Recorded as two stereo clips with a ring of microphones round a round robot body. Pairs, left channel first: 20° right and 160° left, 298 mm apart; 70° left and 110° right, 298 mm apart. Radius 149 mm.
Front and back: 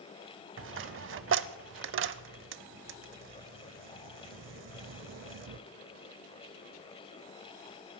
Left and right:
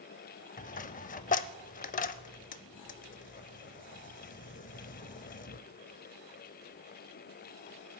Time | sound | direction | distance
0.6 | a dropped coin | 125° left | 0.5 m